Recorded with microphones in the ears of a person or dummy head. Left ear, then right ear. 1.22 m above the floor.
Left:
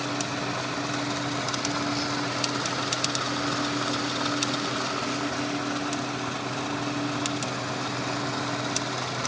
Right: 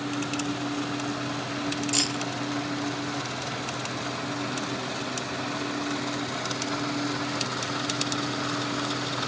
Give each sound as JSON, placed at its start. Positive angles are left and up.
{"t": 1.9, "sound": "keys jangling", "side_deg": -70}